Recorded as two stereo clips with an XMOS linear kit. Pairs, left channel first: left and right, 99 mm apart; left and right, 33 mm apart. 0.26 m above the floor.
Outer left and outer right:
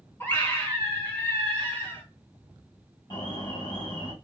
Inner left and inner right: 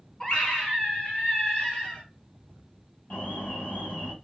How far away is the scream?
About 2 m.